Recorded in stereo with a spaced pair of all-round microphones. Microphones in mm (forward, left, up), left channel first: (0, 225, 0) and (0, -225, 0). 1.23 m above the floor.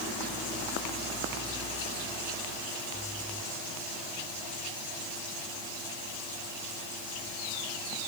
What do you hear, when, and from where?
Only background noise.